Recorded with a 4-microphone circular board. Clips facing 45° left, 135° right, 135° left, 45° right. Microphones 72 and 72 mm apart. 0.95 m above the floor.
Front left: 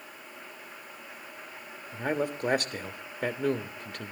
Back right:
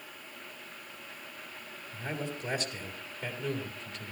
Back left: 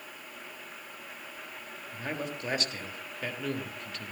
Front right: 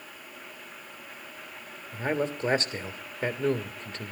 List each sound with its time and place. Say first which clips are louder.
1.9 s a man speaking: front left 8 dB, front right 8 dB; 15° left, 1.5 m